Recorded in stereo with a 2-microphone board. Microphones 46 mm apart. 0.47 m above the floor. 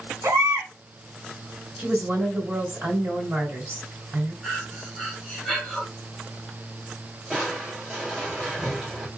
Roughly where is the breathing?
Centre.